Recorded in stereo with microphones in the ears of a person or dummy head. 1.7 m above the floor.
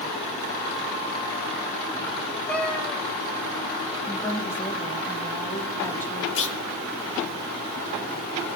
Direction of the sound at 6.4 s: 65° left (ahead or behind).